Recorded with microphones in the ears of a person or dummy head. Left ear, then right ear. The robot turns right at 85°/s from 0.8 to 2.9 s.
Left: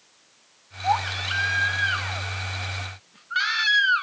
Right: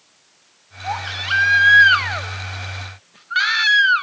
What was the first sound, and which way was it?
A baby crying, 5° left (ahead or behind).